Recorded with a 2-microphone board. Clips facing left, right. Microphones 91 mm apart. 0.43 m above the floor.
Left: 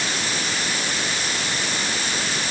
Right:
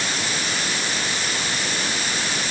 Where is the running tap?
I don't hear a running tap.